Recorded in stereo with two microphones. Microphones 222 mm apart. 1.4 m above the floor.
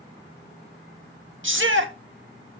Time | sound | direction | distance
1.4 | a shout | 60° right (ahead or behind) | 1.4 m